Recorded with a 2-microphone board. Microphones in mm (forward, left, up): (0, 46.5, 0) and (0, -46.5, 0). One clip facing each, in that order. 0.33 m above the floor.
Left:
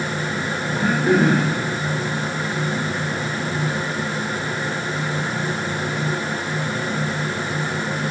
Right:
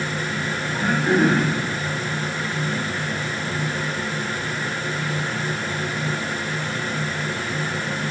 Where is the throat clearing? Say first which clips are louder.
Left 2 dB; 55° left (ahead or behind), 4.5 m.